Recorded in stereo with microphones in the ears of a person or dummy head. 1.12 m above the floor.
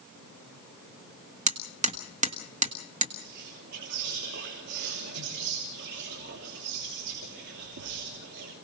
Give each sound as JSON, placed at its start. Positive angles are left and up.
{"t": 1.5, "sound": "hammering", "side_deg": -40, "distance_m": 1.4}
{"t": 3.2, "sound": "whispering", "side_deg": -60, "distance_m": 3.0}